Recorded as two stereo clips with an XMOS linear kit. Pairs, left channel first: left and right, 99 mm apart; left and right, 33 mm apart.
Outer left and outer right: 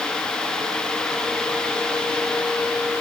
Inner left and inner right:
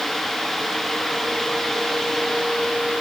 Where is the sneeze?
No sneeze in this recording.